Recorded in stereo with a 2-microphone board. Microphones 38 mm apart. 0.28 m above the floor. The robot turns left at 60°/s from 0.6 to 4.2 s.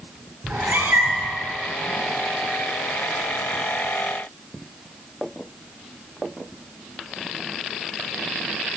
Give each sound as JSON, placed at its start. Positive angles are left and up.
{"t": 0.4, "sound": "a cat meowing", "azimuth_deg": -105, "distance_m": 1.0}